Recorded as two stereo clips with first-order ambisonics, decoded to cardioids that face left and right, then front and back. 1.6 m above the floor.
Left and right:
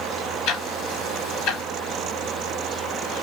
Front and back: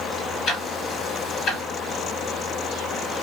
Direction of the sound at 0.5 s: 55° left.